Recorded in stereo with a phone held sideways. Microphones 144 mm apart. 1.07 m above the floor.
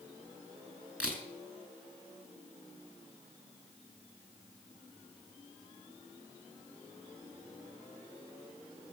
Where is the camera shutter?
5° right (ahead or behind), 4.5 m.